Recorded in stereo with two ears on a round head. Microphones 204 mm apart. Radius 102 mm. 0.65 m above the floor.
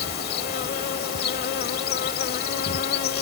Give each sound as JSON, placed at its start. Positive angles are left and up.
{"t": 0.0, "sound": "an insect", "side_deg": 45}